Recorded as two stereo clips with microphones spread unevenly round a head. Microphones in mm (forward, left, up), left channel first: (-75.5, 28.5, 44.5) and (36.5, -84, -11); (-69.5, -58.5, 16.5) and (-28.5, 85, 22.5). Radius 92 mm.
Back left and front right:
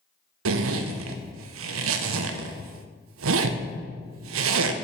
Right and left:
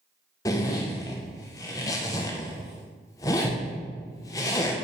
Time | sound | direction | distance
0.5 | a zipper | 35° right | 0.5 m